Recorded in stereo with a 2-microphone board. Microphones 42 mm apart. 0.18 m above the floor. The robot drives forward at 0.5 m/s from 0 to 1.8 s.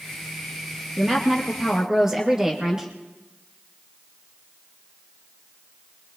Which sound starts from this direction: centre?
A woman speaking, at 1.0 s.